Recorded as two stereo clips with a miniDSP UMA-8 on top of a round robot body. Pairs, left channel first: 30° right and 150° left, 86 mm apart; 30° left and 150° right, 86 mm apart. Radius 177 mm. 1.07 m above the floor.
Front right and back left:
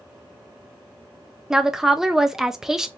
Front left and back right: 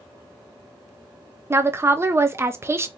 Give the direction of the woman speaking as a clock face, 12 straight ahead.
4 o'clock.